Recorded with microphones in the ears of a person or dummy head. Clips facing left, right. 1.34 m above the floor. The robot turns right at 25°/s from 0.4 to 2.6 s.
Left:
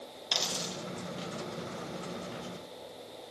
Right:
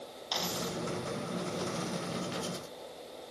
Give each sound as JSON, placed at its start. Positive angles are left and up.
{"t": 0.3, "sound": "a dropped coin", "side_deg": 45, "distance_m": 3.0}